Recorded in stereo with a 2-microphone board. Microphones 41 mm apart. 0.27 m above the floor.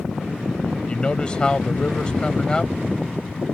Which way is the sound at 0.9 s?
25° left (ahead or behind).